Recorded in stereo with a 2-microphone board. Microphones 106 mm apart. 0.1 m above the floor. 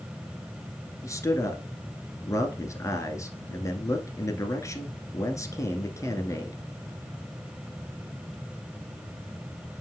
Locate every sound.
1.0 s a man speaking: 30° left (ahead or behind), 1.2 m